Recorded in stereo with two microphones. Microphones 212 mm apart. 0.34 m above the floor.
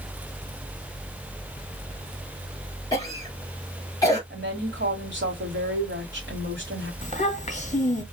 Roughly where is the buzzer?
No buzzer in this recording.